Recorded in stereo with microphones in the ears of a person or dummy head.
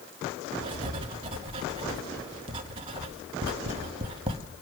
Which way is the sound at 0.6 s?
30° right (ahead or behind).